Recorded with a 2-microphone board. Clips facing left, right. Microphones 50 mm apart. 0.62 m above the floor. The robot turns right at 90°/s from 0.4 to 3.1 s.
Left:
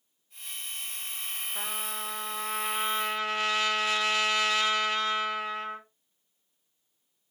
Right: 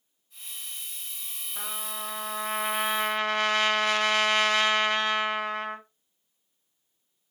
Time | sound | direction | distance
1.6 | a trumpet | 150° left | 0.8 m